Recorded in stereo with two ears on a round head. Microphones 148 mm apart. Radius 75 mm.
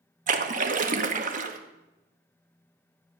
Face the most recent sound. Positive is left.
turn(degrees=-50)  # may be behind; listen again after turning